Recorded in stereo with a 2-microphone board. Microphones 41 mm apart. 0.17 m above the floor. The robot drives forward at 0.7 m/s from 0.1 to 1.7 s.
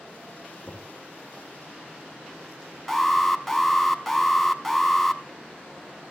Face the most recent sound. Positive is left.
turn(degrees=5)  # may be behind; listen again after turning